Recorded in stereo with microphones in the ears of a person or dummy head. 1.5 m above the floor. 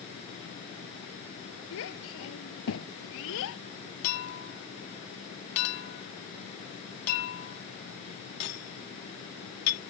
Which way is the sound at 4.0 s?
55° left (ahead or behind).